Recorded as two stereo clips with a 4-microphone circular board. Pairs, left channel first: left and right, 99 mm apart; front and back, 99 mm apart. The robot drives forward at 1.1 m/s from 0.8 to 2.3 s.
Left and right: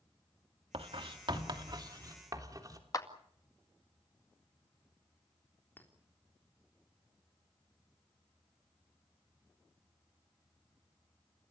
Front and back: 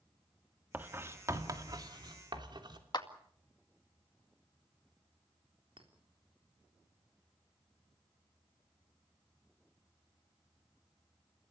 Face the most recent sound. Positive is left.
turn(degrees=160)